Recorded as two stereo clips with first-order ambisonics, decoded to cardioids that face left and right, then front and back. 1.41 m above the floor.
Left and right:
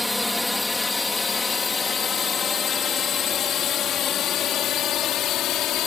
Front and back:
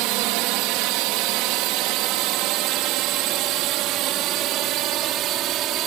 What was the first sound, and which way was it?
A drone, 175° left.